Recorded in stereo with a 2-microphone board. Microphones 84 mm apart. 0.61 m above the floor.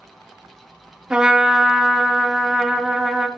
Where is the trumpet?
10° right (ahead or behind), 0.8 m.